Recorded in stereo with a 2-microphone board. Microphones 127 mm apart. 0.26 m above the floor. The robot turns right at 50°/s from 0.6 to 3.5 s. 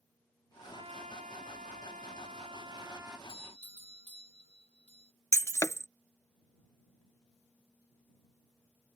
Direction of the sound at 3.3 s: 50° left (ahead or behind).